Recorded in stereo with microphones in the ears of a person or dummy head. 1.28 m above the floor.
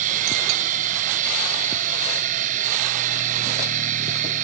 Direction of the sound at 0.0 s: 45° right (ahead or behind).